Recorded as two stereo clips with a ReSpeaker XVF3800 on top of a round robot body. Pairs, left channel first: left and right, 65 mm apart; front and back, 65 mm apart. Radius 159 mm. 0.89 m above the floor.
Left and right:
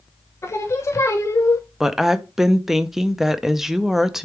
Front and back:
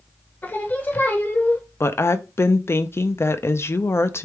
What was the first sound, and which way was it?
Singing, 55° left.